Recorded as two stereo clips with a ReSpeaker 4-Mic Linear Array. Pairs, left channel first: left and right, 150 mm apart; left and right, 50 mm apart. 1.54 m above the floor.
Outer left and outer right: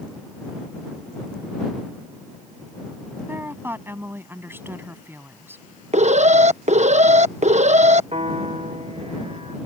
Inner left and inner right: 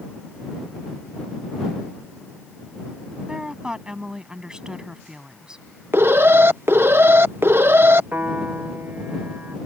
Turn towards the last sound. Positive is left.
turn(degrees=-45)  # may be behind; listen again after turning